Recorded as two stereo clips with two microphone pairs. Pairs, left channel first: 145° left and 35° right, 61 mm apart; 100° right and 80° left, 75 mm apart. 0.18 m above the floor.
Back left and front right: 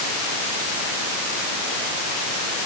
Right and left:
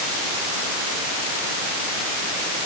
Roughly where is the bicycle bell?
I don't hear a bicycle bell.